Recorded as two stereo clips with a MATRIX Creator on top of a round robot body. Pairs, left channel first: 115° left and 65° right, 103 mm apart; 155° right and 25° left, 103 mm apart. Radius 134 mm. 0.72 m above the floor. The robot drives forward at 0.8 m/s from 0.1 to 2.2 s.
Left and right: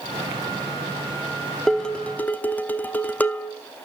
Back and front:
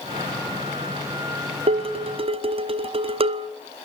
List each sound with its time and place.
1.7 s dishes clattering: 25° left, 1.3 m; by 3.5 s 40° left, 0.9 m